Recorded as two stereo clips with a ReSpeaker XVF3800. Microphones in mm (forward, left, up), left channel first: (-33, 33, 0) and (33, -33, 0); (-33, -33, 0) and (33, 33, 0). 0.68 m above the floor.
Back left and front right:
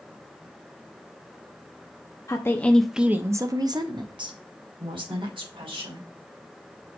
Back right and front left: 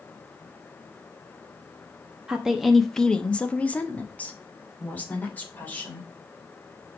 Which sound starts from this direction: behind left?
A woman speaking, at 2.3 s.